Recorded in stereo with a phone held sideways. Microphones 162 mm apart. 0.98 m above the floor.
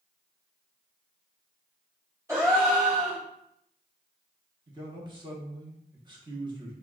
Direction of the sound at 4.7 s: 25° right (ahead or behind).